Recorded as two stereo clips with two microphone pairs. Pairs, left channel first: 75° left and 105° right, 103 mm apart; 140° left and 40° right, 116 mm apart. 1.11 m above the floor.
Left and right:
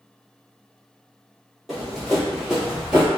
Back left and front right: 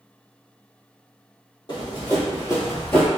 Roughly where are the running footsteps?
Behind.